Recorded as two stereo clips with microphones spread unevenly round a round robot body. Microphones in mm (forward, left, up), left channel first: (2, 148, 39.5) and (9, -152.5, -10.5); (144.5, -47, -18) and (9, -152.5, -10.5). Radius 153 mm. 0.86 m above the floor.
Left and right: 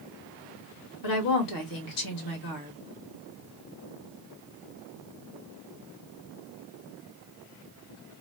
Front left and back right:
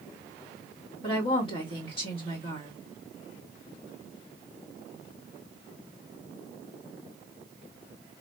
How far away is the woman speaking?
About 1.6 m.